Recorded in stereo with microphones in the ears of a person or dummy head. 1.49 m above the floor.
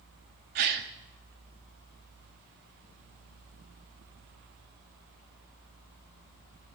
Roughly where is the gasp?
Right.